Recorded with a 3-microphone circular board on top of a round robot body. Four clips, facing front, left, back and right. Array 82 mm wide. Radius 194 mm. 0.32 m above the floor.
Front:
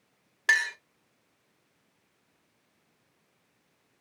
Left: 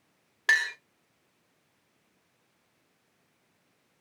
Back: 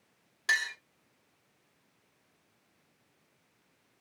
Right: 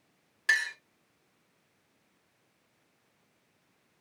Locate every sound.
0.5 s a clink: 50° left, 1.6 m